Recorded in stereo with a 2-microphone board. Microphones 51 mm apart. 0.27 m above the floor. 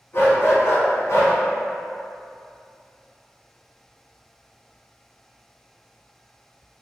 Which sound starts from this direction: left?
A dog barking, at 0.1 s.